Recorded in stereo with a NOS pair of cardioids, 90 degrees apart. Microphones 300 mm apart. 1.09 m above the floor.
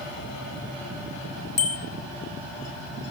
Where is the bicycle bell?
55° left, 4 m.